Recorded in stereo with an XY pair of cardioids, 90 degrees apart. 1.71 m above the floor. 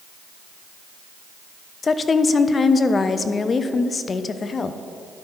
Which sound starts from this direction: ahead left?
A woman speaking, at 1.8 s.